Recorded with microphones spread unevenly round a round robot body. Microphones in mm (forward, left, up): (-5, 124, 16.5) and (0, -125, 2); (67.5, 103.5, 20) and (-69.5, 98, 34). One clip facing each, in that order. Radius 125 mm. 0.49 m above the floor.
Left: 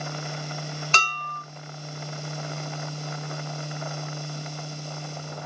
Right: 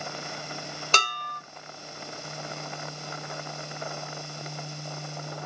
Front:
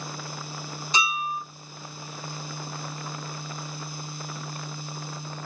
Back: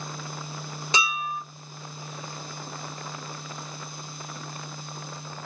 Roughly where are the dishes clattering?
Behind right.